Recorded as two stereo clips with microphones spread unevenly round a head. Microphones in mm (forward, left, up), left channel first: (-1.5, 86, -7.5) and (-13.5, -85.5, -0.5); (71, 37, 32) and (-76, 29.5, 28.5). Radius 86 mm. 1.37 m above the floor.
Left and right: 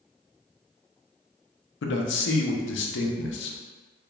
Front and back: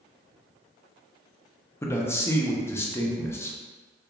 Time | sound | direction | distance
1.8 | a man speaking | 75° left | 0.6 m